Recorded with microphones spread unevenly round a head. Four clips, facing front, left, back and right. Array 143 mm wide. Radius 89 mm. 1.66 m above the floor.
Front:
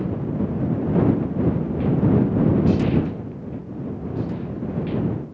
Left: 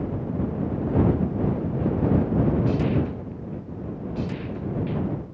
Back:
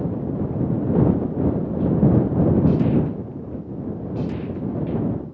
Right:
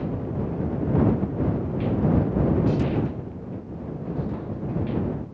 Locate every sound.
Only background noise.